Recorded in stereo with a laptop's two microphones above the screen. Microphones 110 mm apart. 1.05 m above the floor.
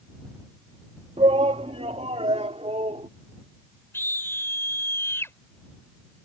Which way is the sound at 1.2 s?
75° right (ahead or behind).